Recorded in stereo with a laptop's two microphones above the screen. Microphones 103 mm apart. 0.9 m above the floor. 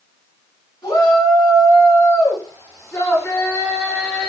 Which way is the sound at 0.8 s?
35° left (ahead or behind).